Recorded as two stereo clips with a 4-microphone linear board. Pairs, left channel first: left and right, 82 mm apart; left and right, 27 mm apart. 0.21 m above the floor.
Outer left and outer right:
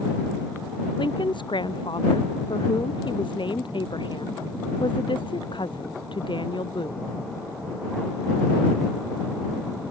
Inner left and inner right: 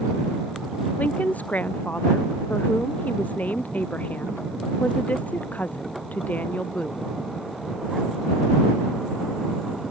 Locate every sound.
1.0 s a woman speaking: 75° left (ahead or behind)